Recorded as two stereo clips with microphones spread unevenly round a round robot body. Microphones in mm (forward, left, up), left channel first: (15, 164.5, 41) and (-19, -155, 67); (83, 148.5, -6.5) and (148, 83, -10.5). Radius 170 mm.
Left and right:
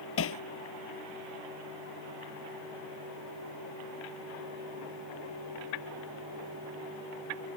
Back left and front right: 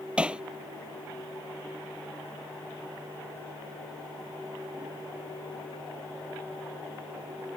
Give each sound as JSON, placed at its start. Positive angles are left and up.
{"t": 0.2, "sound": "hammering", "azimuth_deg": 35}